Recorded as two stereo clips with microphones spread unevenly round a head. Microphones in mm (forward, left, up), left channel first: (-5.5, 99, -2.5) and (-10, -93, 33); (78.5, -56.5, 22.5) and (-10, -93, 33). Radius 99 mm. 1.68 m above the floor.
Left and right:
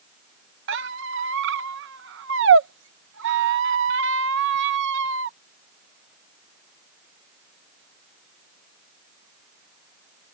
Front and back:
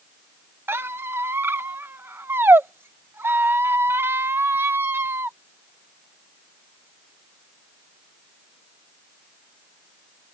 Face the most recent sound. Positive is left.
turn(degrees=-95)